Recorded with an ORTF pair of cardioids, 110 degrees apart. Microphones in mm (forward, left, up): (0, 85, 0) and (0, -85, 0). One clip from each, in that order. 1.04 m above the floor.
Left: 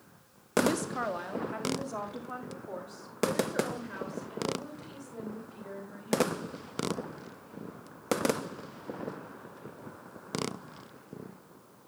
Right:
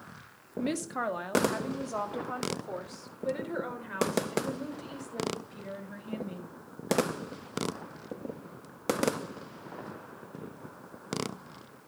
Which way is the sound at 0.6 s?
Straight ahead.